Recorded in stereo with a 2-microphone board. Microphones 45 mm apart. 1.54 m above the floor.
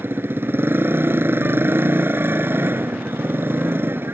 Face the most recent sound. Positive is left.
turn(degrees=-55)  # may be behind; listen again after turning